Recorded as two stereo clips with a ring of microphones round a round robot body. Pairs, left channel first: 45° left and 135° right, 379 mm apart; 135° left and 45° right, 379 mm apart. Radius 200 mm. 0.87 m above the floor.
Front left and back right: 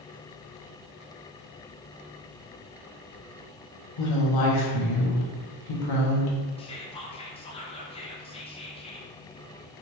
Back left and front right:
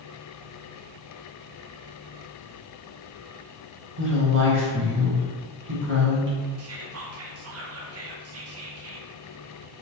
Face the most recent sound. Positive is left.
turn(degrees=-25)